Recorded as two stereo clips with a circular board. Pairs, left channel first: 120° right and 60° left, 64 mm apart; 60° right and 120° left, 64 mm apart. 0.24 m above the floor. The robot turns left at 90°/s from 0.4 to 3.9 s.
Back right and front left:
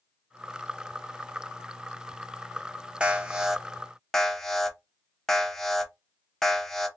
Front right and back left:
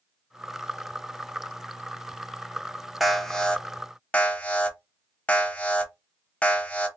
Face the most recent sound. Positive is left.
turn(degrees=-45)